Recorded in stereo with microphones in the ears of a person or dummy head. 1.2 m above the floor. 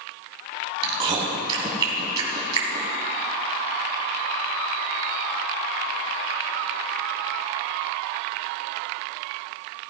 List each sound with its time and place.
0.8 s chewing: 25° right (ahead or behind), 2 m